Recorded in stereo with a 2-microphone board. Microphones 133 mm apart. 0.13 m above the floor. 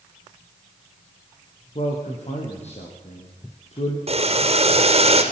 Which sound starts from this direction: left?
A man speaking, at 1.8 s.